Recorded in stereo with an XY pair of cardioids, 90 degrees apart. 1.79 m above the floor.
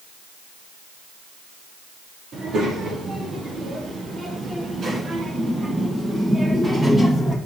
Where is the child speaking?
70° right, 3 m; by 7.4 s 5° right, 1.9 m.